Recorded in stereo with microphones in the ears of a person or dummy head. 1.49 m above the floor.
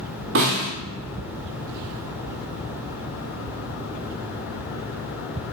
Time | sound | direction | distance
0.3 | a snare drum | 55° right (ahead or behind) | 1.7 m